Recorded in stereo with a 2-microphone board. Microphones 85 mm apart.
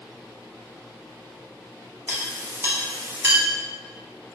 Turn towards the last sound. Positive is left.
turn(degrees=-35)  # may be behind; listen again after turning